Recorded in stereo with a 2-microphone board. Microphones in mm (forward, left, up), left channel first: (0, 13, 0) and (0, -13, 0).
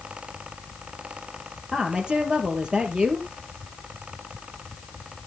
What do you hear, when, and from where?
1.7 s a woman speaking: 30° right (ahead or behind), 3 m